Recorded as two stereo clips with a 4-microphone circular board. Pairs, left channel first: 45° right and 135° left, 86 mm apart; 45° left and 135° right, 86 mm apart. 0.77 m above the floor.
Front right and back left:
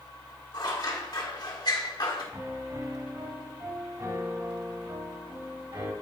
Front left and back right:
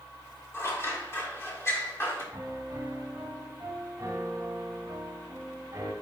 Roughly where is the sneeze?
I don't hear a sneeze.